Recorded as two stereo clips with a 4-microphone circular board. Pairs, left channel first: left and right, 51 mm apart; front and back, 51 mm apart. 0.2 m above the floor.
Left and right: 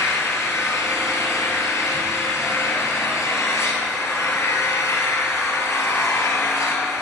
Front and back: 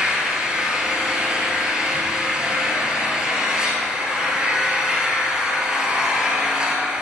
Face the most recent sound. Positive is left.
turn(degrees=105)